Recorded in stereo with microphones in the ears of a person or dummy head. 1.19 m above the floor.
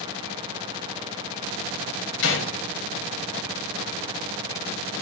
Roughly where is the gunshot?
Left.